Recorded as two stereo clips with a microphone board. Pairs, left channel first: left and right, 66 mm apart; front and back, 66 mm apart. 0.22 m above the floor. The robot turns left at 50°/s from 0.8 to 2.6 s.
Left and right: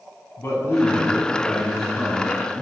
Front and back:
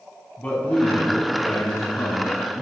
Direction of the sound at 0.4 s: 60° left.